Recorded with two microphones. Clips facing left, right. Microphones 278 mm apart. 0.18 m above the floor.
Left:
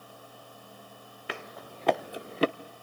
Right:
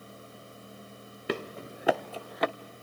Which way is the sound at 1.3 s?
45° right (ahead or behind).